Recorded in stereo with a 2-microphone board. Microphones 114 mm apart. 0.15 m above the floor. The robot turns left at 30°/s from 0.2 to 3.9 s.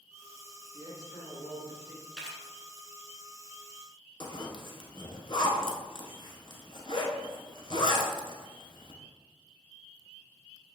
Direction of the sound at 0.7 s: 130° right.